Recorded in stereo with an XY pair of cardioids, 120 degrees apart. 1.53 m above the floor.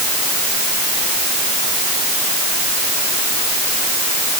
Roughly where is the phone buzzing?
I don't hear a phone buzzing.